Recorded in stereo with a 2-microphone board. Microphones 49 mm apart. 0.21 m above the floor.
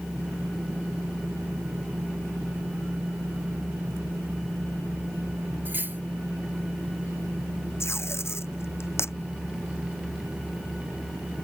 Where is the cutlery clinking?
40° right (ahead or behind).